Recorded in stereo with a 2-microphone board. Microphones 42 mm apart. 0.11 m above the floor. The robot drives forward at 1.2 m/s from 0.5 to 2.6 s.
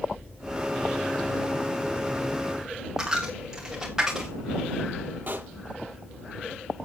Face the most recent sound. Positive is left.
turn(degrees=-45)  # may be behind; listen again after turning